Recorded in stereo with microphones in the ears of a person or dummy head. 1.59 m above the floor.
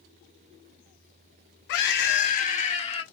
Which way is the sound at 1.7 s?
65° left (ahead or behind).